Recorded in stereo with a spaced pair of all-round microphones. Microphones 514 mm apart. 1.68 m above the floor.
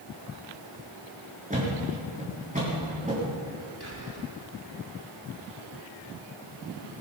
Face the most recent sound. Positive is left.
turn(degrees=35)  # may be behind; listen again after turning